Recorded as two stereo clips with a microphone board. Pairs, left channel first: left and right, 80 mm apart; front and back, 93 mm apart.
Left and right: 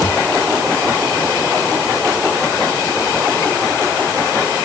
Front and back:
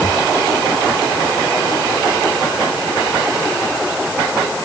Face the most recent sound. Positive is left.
No sound to turn to.